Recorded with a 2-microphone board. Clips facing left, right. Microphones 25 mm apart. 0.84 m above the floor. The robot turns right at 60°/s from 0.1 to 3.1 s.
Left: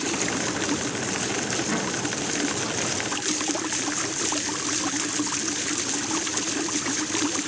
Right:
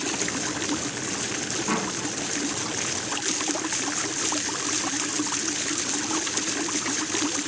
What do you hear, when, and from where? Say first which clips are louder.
1.7 s a door slam: even; 70° right (ahead or behind), 7.5 m; by 2.0 s 85° right, 7.5 m